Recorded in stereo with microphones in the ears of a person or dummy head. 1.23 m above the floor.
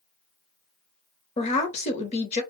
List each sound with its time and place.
1.4 s a woman speaking: 35° left (ahead or behind), 0.8 m